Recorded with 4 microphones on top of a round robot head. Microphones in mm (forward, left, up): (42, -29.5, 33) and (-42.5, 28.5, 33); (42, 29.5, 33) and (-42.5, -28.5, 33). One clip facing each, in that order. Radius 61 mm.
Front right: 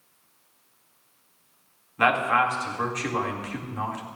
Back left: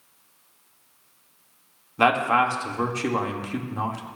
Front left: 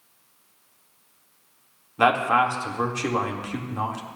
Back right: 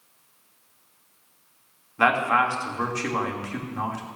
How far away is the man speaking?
About 1.6 m.